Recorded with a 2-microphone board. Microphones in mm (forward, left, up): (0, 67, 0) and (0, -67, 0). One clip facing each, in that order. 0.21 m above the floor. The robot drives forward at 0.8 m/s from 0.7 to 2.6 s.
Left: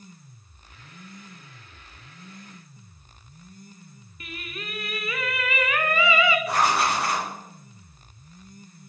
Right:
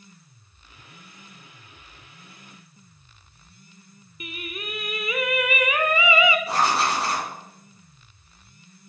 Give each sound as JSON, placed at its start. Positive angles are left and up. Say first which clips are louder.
{"t": 4.2, "sound": "singing", "louder": "right 3 dB", "side_deg": -20, "distance_m": 0.5}
{"t": 6.5, "sound": "writing", "louder": "even", "side_deg": -30, "distance_m": 3.0}